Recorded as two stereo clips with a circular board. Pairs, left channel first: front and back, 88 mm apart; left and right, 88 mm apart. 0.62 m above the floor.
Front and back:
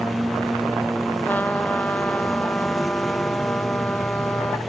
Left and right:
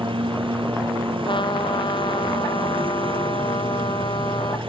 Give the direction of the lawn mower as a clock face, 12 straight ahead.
3 o'clock.